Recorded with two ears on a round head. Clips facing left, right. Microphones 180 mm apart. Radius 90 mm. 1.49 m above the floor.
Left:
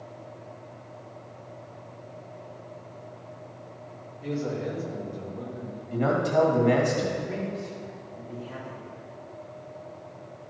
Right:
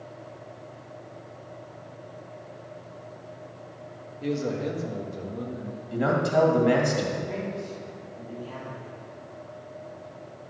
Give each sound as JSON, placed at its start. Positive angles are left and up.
{"t": 4.2, "sound": "a man speaking", "side_deg": -50, "distance_m": 1.9}
{"t": 5.9, "sound": "a man speaking", "side_deg": -10, "distance_m": 2.0}
{"t": 7.3, "sound": "a man speaking", "side_deg": 5, "distance_m": 2.5}